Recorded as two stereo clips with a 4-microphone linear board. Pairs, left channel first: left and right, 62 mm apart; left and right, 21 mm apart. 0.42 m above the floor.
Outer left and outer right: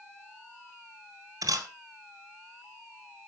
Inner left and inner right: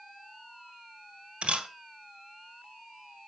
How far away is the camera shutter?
About 1.4 m.